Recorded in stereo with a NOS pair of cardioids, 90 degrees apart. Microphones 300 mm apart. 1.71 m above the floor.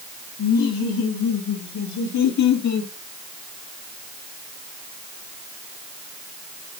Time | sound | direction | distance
0.4 | laughter | 60° left | 6 m